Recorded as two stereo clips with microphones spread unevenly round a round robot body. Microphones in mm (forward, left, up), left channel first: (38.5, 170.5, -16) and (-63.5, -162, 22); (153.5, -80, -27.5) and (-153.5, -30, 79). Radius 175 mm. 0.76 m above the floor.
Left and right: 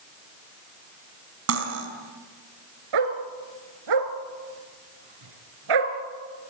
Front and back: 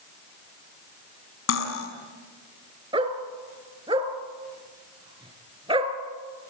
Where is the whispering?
No whispering in this recording.